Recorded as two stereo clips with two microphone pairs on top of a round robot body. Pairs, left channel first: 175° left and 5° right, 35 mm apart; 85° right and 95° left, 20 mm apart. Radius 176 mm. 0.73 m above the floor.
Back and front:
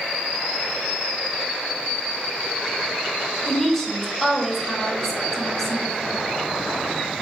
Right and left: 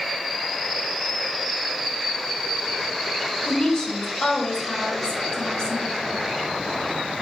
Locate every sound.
3.5 s a woman speaking: 105° right, 1.0 m